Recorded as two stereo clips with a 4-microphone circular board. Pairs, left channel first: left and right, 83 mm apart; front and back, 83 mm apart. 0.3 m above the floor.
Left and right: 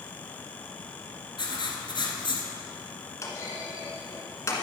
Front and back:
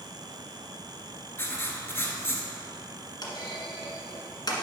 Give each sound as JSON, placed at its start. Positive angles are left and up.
{"t": 1.4, "sound": "writing", "azimuth_deg": 65, "distance_m": 1.3}
{"t": 3.2, "sound": "a clunk", "azimuth_deg": 35, "distance_m": 1.4}